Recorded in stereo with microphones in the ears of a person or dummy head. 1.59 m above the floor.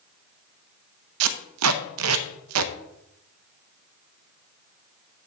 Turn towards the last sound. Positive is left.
turn(degrees=-80)